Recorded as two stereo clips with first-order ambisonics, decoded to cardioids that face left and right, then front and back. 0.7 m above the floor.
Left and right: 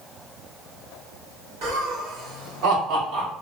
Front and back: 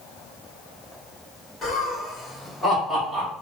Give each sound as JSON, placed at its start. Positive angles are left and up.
{"t": 1.6, "sound": "laughter", "azimuth_deg": -70, "distance_m": 1.6}